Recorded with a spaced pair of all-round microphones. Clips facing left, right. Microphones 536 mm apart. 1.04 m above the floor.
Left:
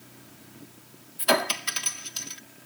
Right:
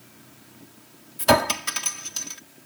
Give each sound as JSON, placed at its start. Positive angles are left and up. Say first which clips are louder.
{"t": 1.2, "sound": "a clink", "louder": "right 5 dB", "side_deg": -65}